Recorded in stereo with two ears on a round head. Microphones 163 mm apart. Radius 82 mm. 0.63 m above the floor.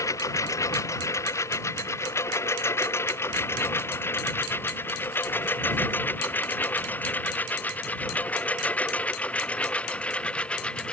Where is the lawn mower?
15° left (ahead or behind); by 10.9 s 5° left (ahead or behind).